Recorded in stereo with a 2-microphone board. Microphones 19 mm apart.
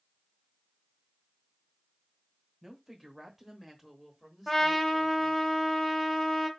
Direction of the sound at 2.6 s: 5° right (ahead or behind).